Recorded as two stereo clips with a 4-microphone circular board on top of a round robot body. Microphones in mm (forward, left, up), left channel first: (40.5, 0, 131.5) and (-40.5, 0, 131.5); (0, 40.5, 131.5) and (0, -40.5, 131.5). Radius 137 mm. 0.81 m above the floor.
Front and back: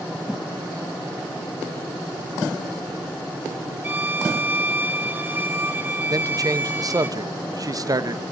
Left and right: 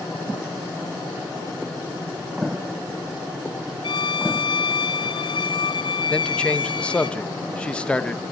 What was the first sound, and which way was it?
A violin, 115° left.